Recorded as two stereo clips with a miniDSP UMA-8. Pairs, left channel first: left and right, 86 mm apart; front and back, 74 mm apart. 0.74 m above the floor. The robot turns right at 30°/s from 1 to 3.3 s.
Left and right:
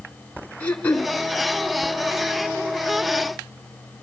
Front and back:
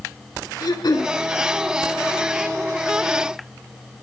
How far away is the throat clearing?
About 2.5 m.